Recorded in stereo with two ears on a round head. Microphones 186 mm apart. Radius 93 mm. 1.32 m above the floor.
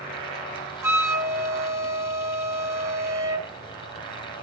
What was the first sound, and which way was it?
A flute, 15° right (ahead or behind).